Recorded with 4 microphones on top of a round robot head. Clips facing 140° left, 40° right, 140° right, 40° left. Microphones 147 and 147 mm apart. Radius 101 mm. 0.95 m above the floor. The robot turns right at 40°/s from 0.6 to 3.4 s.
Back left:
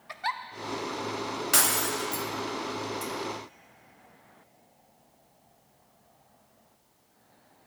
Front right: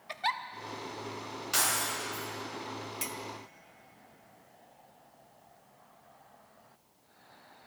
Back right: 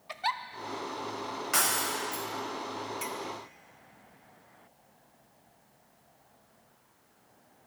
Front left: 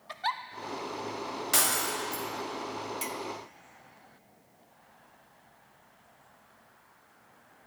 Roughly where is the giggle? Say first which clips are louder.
Even, even; right.